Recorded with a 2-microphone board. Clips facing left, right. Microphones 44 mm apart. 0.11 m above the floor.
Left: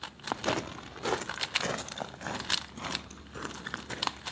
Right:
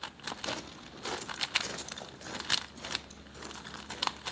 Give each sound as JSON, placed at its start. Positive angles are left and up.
{"t": 0.3, "sound": "footsteps", "side_deg": 50, "distance_m": 0.7}